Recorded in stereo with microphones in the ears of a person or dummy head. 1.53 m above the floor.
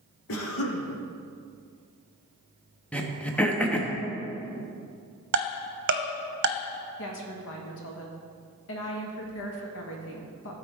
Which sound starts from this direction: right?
Ticking, at 5.3 s.